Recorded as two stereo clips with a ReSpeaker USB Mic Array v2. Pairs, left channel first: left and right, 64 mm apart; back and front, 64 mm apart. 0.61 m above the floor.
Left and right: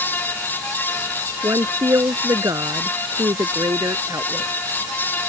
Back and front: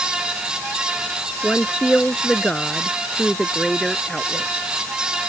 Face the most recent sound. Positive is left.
turn(degrees=-95)